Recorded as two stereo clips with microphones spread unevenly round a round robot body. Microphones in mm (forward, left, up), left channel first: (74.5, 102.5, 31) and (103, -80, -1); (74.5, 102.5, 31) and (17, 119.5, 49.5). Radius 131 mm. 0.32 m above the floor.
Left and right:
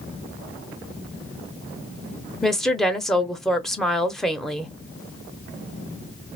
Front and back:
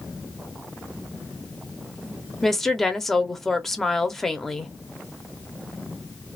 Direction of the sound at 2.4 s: 10° right.